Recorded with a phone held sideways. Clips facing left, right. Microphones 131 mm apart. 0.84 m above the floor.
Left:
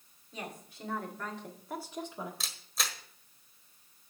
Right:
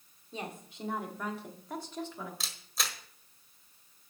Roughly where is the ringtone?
I don't hear a ringtone.